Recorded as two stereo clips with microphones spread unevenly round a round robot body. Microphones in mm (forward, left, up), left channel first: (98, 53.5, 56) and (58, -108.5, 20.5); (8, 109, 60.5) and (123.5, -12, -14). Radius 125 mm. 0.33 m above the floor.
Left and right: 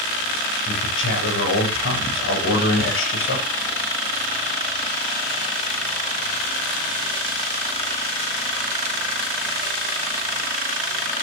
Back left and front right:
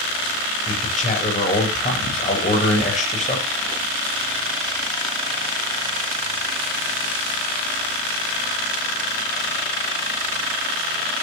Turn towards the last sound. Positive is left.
turn(degrees=85)